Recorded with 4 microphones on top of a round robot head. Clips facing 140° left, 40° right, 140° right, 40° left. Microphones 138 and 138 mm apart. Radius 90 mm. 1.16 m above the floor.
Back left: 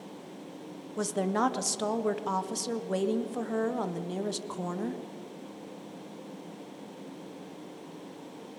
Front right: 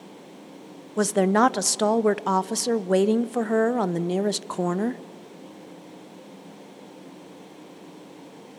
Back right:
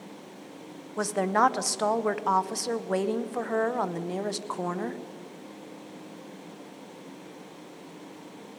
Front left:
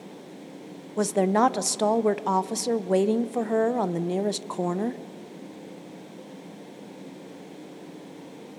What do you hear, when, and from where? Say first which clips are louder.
1.0 s a woman speaking: front right 9 dB, front left 3 dB; 25° right, 0.5 m